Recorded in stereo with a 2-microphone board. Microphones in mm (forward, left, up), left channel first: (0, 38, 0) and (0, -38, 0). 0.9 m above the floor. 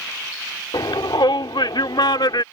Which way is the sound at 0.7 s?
75° left (ahead or behind).